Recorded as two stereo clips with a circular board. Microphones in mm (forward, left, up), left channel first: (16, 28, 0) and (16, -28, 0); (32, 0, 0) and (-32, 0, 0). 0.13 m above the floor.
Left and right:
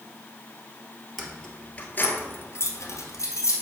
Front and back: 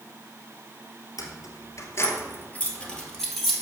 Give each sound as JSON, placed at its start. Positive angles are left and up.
{"t": 1.2, "sound": "keys jangling", "azimuth_deg": 0, "distance_m": 1.7}